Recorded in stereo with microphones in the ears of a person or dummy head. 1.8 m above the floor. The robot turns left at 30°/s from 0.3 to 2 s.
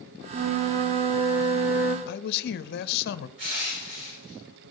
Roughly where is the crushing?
Right.